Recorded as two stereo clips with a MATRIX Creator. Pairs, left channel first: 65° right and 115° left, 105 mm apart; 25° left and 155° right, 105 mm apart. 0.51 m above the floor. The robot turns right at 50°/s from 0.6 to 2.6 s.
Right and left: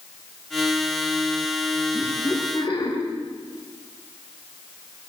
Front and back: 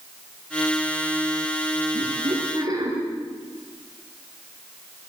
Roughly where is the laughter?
Behind right.